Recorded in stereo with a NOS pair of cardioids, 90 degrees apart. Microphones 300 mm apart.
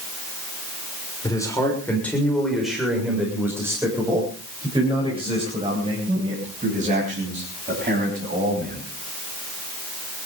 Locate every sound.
1.2 s a man speaking: 10° left, 6.5 m; by 8.9 s 30° right, 13 m